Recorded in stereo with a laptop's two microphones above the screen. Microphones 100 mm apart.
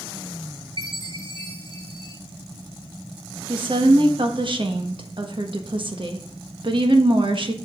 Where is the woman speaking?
60° right (ahead or behind), 1.3 m.